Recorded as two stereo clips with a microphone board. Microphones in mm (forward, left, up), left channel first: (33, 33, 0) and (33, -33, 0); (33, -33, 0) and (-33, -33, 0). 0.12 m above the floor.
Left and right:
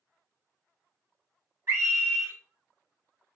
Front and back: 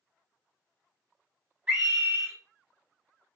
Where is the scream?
110° right, 2 m.